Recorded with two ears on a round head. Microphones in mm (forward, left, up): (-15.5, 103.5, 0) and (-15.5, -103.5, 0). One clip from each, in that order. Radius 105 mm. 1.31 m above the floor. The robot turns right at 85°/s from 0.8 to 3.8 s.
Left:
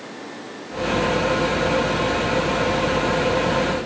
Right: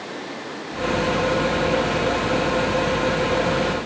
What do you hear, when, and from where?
Only background noise.